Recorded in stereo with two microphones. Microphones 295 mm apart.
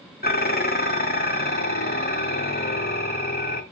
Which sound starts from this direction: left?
Dishes clattering, at 0.2 s.